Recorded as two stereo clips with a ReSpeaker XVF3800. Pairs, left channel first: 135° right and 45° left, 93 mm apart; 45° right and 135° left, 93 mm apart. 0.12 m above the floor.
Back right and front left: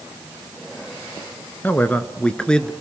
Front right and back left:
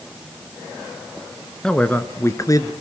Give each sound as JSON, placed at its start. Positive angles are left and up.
{"t": 1.6, "sound": "a man speaking", "azimuth_deg": -115, "distance_m": 1.3}